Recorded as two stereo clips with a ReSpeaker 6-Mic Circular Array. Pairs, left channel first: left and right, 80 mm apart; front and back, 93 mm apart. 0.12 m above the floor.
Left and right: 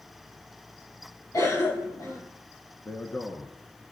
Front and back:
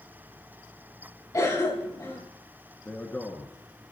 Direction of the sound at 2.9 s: 50° left.